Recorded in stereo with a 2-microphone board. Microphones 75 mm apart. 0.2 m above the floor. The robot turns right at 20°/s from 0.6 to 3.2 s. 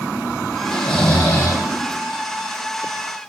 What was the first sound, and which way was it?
Snoring, 5° left (ahead or behind).